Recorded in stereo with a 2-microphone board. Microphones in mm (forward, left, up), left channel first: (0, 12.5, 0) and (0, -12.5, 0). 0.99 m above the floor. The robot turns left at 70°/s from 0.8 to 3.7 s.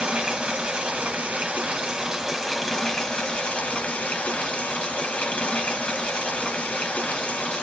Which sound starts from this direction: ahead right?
Running water, at 0.0 s.